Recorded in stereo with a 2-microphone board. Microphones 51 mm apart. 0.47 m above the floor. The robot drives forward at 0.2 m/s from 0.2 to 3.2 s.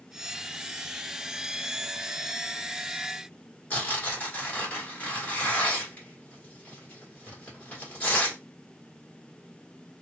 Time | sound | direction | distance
3.7 | tearing paper | 35° left (ahead or behind) | 1.6 m